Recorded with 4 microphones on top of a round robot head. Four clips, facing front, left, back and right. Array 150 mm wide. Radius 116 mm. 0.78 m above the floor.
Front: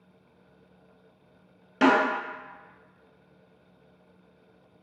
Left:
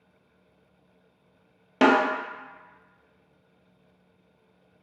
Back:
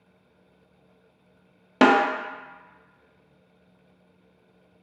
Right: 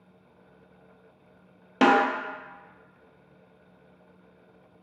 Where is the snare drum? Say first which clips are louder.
Even, back 3 dB; straight behind, 0.6 m.